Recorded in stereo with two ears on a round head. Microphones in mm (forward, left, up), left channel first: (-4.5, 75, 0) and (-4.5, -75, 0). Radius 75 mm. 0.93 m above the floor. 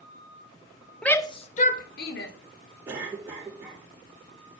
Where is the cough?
15° right (ahead or behind), 3 m.